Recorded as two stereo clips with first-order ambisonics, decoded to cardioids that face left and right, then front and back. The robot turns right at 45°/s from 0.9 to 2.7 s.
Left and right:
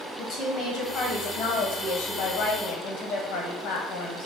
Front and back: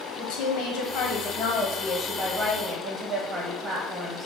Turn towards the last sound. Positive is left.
turn(degrees=120)